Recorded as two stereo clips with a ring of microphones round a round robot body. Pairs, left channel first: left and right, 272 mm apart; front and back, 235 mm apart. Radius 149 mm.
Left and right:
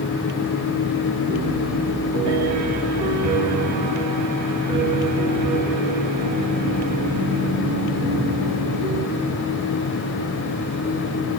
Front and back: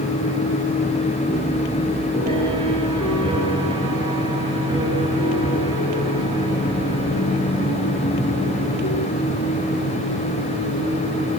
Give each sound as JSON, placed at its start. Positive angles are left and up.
{"t": 1.3, "sound": "a piano", "azimuth_deg": -105, "distance_m": 2.0}